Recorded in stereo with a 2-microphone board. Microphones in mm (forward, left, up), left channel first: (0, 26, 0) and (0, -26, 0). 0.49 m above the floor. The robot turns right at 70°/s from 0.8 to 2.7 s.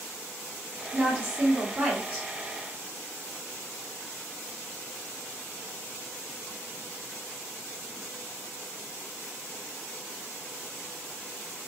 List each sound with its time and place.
0.9 s a woman speaking: 120° right, 1.7 m; by 2.3 s 25° right, 1.7 m